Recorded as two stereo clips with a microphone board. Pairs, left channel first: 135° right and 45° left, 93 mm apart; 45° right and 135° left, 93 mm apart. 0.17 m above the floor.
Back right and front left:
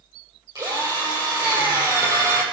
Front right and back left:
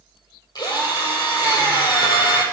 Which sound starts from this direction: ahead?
A drill, at 0.6 s.